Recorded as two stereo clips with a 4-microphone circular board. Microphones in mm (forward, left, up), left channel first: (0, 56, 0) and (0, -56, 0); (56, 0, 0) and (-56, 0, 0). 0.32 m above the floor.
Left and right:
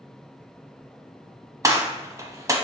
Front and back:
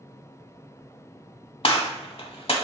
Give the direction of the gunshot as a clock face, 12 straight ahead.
1 o'clock.